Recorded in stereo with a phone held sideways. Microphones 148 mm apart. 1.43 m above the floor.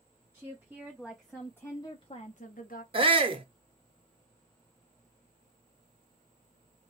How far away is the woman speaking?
About 1.3 m.